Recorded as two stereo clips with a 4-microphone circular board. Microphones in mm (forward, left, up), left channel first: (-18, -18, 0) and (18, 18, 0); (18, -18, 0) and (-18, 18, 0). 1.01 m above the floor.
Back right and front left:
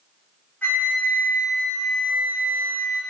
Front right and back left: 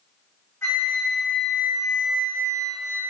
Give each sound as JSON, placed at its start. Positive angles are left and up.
{"t": 0.6, "sound": "a flute", "azimuth_deg": -75, "distance_m": 0.8}